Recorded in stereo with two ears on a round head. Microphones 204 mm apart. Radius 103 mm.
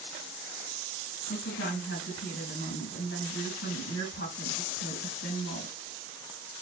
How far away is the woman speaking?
About 2.5 m.